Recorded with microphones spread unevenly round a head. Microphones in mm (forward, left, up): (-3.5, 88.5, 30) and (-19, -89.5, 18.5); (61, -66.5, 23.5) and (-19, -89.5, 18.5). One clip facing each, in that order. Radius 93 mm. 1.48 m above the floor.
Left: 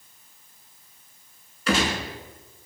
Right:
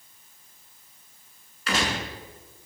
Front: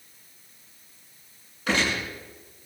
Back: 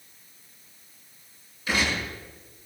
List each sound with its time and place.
1.7 s a gunshot: 85° left, 6.5 m